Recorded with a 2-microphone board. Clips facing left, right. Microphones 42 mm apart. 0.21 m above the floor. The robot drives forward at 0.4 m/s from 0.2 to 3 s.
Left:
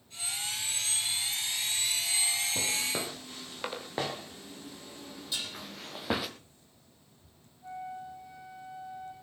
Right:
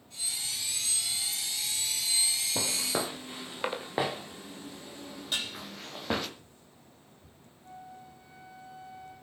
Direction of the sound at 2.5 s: 25° right (ahead or behind).